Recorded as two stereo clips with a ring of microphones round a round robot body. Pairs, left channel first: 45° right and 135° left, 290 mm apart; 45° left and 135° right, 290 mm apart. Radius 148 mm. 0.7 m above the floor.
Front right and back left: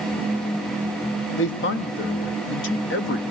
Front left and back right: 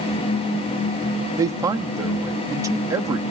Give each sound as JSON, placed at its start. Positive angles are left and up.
{"t": 1.4, "sound": "a man speaking", "azimuth_deg": -60, "distance_m": 1.0}